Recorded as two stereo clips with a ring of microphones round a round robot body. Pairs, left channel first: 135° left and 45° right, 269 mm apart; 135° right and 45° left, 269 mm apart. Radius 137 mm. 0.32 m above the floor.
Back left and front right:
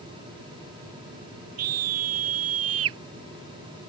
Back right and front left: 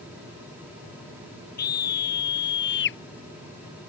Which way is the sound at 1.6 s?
80° right.